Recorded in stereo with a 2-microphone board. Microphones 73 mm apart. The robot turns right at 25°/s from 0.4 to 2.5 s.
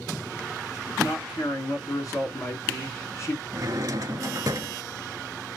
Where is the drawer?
55° right (ahead or behind), 0.7 m.